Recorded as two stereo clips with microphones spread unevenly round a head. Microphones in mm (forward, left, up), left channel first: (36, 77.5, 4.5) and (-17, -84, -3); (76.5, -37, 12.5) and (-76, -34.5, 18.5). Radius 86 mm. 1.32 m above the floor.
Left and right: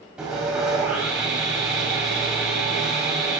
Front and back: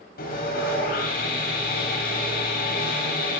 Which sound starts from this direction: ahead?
Sawing, at 0.2 s.